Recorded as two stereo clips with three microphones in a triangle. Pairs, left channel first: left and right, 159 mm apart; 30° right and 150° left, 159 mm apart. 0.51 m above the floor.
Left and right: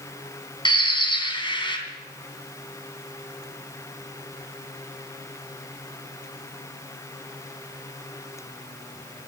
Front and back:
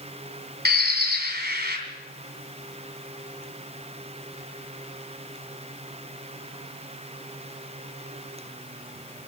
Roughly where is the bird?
Behind left.